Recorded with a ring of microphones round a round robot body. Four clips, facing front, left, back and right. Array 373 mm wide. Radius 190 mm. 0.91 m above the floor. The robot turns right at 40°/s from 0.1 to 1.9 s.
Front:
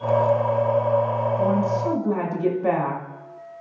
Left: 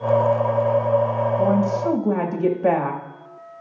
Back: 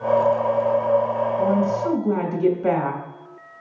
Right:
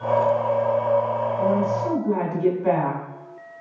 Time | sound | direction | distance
1.4 | a woman speaking | 80° left | 2 m